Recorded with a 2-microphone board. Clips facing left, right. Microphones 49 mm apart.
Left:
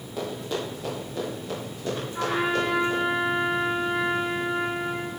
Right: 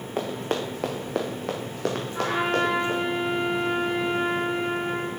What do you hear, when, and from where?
0.2 s running footsteps: 45° right (ahead or behind), 2.0 m; by 3.0 s 55° right (ahead or behind), 3.5 m
2.1 s a trumpet: 5° right (ahead or behind), 4 m